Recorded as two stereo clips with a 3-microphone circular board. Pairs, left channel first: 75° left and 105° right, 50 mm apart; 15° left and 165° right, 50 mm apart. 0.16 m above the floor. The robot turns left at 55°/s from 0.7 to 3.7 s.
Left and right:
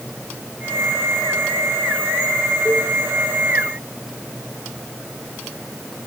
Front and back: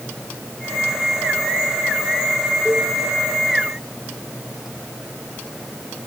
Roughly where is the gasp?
I don't hear a gasp.